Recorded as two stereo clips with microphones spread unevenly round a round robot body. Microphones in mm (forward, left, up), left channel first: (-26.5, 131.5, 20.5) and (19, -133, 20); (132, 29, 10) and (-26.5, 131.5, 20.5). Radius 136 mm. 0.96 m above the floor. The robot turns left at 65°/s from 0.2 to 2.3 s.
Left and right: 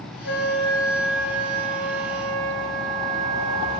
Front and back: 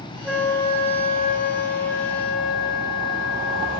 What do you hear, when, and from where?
0.2 s a flute: 60° left, 1.6 m; by 3.8 s 75° right, 1.6 m